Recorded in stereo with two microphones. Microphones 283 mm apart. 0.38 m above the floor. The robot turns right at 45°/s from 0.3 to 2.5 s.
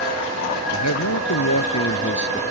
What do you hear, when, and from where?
0.7 s a man speaking: 70° left; by 2.4 s 150° left